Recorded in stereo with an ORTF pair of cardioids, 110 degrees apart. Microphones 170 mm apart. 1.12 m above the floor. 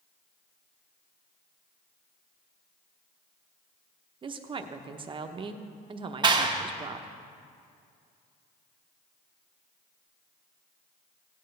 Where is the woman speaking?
30° right, 0.9 m.